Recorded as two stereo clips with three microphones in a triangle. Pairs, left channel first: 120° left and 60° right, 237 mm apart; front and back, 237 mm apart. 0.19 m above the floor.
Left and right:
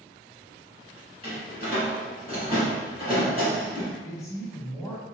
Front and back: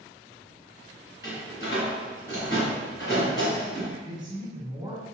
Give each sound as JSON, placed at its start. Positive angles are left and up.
{"t": 1.2, "sound": "a door slam", "azimuth_deg": -5, "distance_m": 1.8}
{"t": 4.0, "sound": "a woman speaking", "azimuth_deg": 165, "distance_m": 1.1}